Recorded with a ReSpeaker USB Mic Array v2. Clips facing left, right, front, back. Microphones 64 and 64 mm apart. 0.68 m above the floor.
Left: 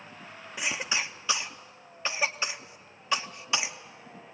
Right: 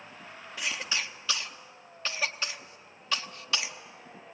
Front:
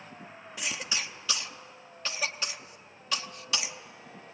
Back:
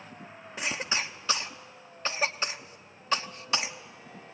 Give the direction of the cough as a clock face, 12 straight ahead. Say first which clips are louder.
Left 2 dB, back 4 dB; 7 o'clock.